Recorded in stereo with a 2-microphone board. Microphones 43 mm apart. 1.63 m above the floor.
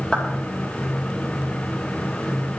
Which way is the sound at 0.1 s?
15° left (ahead or behind).